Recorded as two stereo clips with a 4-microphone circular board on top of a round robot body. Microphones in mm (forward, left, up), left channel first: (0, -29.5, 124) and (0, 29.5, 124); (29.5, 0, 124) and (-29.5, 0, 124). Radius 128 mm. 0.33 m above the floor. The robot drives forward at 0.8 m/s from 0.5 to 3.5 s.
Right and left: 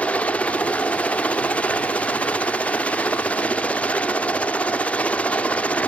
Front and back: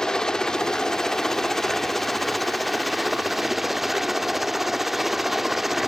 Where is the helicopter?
65° right; by 5.9 s 100° right.